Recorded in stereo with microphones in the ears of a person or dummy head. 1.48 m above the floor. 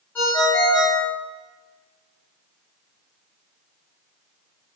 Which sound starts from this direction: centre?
A ringtone, at 0.1 s.